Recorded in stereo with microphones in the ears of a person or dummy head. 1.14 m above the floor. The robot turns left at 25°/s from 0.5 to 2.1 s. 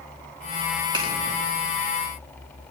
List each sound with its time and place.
0.9 s a finger snap: 20° right (ahead or behind), 4 m; by 1.1 s 15° right (ahead or behind), 4 m